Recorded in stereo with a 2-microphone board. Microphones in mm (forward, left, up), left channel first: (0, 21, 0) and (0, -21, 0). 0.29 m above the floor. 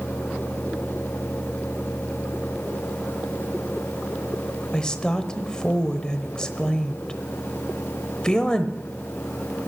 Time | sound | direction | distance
4.7 | a woman speaking | 20° left (ahead or behind) | 0.9 m